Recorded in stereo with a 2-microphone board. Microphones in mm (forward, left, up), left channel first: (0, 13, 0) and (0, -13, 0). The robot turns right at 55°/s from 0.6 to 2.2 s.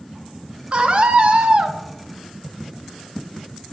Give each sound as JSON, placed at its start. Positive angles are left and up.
{"t": 0.7, "sound": "a scream", "azimuth_deg": -110, "distance_m": 0.7}